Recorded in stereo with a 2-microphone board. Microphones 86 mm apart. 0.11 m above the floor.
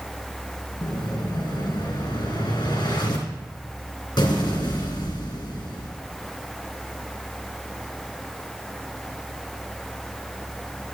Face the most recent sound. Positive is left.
turn(degrees=55)  # may be behind; listen again after turning